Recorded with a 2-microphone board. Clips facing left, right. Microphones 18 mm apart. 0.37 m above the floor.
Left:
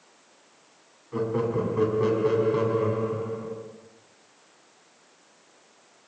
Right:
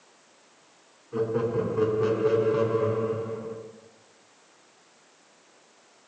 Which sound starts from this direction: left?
Laughter, at 1.1 s.